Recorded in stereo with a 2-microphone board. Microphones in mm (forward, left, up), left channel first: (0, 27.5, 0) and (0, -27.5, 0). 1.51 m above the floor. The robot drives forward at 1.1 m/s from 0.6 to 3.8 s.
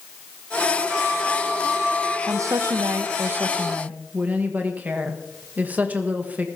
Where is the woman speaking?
60° right (ahead or behind), 0.9 m; by 6.5 s 30° right (ahead or behind), 1.5 m.